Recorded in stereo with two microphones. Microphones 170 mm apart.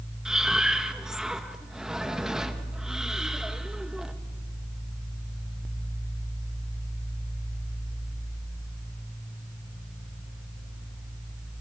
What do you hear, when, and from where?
0.2 s breathing: 5° right (ahead or behind), 1.8 m